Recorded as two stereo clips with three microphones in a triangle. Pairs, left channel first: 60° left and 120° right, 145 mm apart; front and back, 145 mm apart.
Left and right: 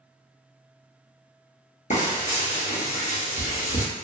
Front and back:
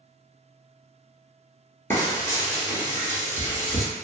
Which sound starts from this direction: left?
Frying, at 1.9 s.